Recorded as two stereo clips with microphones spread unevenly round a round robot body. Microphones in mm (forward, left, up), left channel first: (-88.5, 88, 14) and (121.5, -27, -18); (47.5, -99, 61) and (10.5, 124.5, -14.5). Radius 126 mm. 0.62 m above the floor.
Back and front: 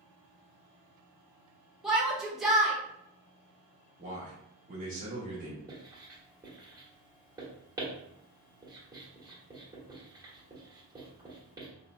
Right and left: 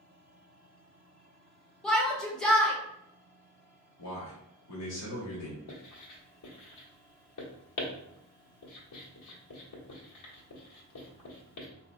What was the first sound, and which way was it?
A shout, 45° left.